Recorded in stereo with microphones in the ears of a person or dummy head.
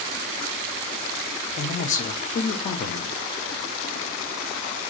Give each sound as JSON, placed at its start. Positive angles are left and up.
{"t": 1.6, "sound": "a man speaking", "side_deg": 35, "distance_m": 0.7}